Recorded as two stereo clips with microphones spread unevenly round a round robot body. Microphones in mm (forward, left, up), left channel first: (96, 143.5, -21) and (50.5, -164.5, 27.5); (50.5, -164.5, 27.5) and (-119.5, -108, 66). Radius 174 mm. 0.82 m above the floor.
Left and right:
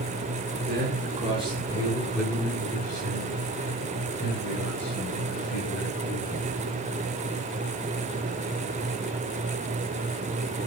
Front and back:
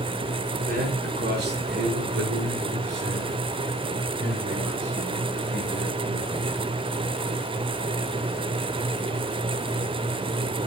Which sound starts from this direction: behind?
A man speaking, at 0.7 s.